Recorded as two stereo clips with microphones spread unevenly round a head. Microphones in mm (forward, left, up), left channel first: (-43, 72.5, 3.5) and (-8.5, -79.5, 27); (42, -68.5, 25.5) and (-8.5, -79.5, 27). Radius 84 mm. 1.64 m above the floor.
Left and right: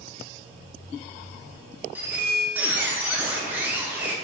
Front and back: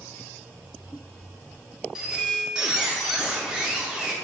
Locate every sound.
1.9 s a squeak: 110° right, 0.5 m